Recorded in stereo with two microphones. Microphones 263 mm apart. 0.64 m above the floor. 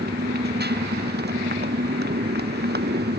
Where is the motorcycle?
40° right (ahead or behind).